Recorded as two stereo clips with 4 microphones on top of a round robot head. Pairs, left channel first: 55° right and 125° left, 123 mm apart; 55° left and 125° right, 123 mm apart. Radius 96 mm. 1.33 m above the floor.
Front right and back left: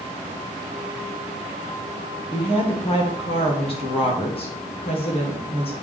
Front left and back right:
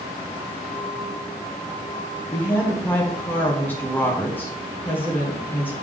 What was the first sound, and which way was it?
A woman speaking, 20° right.